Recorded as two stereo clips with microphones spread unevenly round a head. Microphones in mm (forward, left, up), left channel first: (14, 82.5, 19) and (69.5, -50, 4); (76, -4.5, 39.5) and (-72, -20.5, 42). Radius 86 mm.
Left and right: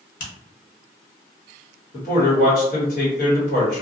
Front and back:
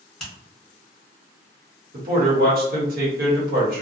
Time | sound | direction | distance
0.2 | a finger snap | 90° left | 1.1 m
1.9 | a man speaking | 155° left | 1.1 m